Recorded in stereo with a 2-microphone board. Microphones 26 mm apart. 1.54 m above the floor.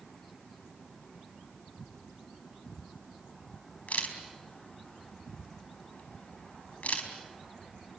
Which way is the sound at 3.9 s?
65° left (ahead or behind).